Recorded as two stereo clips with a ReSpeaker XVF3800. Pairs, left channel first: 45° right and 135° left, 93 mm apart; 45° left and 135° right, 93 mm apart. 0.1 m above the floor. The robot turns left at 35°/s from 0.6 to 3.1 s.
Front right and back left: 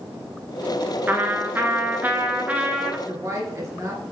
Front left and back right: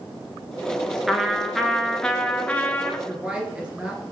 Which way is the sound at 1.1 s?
140° left.